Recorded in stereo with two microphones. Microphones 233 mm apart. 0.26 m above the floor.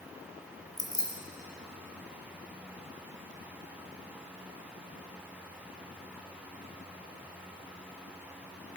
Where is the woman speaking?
I don't hear a woman speaking.